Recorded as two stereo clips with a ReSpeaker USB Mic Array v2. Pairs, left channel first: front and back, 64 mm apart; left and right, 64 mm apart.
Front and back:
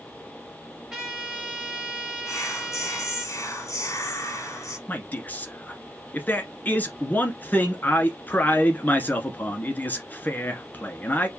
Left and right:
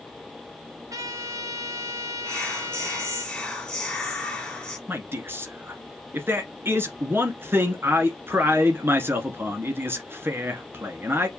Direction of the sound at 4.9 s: 55° right.